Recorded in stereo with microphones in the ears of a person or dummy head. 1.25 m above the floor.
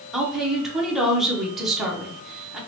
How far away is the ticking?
No ticking in this recording.